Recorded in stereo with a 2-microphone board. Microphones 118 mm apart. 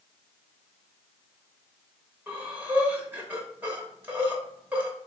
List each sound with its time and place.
2.3 s breathing: 15° right (ahead or behind), 0.9 m